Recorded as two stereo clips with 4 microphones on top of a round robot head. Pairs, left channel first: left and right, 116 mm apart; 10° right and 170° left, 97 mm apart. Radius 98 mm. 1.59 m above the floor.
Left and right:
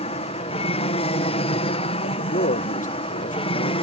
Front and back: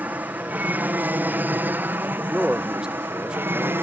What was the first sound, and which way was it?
An aircraft, 100° left.